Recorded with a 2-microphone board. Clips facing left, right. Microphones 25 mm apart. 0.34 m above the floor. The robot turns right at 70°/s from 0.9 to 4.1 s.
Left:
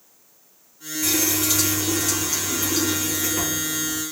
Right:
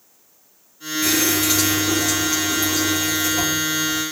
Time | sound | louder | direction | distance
1.0 | a running tap | right 3 dB | 80° right | 2.5 m